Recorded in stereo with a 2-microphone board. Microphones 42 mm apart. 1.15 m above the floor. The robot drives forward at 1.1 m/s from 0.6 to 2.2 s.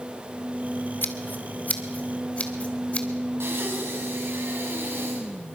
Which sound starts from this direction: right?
Breathing, at 3.4 s.